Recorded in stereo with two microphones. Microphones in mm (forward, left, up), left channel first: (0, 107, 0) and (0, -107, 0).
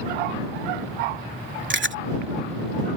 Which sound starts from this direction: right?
Chewing, at 1.7 s.